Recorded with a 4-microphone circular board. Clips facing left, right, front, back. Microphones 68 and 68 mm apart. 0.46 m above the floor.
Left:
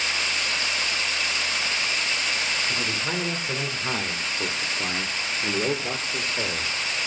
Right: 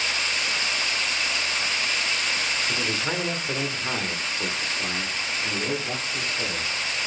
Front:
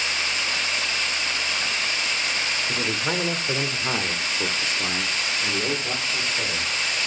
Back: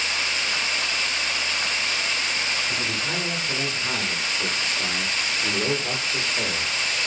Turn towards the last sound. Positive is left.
turn(degrees=120)